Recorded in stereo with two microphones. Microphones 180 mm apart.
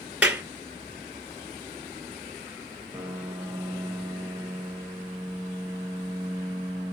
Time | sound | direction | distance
0.2 | a clap | 5° right (ahead or behind) | 1.6 m
2.9 | a piano | 10° right (ahead or behind) | 1.0 m